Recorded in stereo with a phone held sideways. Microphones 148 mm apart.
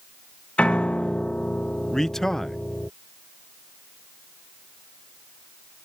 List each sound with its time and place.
0.6 s a piano: 10° left (ahead or behind)
1.9 s a man speaking: 5° left (ahead or behind)